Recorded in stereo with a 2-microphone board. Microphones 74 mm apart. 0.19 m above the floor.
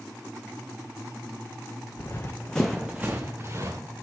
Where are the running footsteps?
45° left (ahead or behind), 0.7 m; by 3.8 s 40° right (ahead or behind), 1.0 m.